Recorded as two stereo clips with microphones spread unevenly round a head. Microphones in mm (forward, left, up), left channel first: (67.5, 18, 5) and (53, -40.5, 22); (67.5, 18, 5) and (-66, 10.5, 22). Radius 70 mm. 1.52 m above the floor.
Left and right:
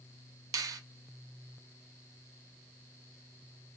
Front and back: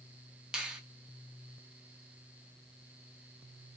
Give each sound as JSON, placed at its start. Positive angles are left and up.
{"t": 0.5, "sound": "a finger snap", "azimuth_deg": -95, "distance_m": 0.6}